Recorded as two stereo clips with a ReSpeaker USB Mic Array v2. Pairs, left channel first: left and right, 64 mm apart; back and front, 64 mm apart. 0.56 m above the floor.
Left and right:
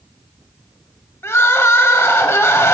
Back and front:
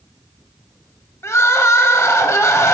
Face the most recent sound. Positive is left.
turn(degrees=135)